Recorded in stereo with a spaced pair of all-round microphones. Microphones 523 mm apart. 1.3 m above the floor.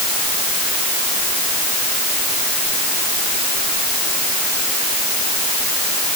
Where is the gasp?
I don't hear a gasp.